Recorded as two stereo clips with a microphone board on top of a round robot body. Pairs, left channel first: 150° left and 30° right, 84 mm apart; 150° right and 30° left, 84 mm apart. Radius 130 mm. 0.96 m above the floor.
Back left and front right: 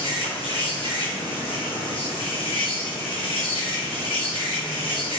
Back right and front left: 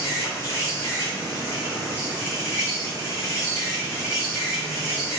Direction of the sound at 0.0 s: 150° left.